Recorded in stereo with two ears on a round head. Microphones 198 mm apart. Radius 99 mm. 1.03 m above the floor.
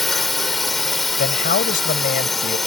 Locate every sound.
0.0 s a drone: centre (ahead or behind)
1.2 s a man speaking: 40° left (ahead or behind)